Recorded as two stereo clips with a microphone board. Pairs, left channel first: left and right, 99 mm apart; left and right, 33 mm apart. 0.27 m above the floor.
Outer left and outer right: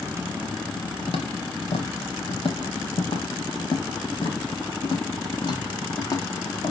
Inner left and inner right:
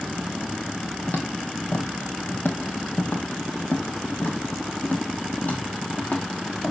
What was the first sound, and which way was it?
Footsteps, 80° left.